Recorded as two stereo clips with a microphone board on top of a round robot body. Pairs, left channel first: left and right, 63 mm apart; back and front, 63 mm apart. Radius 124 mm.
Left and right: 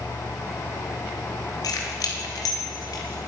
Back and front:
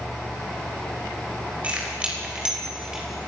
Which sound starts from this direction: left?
Keys jangling, at 1.6 s.